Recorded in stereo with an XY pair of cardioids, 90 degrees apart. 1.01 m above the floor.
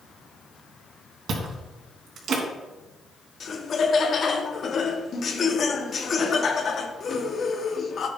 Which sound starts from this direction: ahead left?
Laughter, at 3.4 s.